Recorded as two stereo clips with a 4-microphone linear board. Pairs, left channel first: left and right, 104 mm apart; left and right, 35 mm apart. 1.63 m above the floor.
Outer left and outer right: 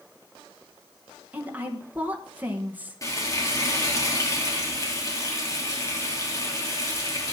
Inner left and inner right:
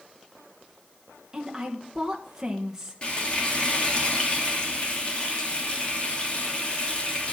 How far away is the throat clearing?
No throat clearing in this recording.